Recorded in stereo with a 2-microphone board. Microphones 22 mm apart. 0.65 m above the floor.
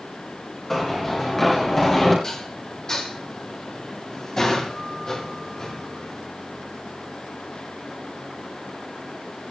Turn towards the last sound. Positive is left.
turn(degrees=25)  # may be behind; listen again after turning